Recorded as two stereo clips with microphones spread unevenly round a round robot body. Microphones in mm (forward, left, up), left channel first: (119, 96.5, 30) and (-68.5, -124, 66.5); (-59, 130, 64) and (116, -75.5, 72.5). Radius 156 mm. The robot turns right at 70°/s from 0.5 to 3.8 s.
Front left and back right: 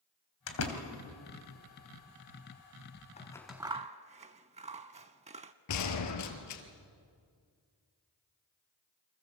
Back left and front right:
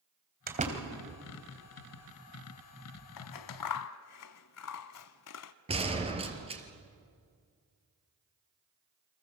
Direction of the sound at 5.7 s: 20° left.